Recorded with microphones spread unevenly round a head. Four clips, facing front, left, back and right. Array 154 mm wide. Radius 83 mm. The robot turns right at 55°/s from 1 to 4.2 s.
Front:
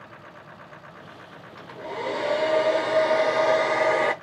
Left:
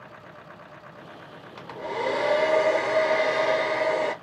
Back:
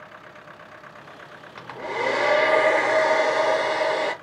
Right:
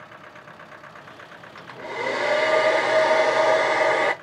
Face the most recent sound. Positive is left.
turn(degrees=-65)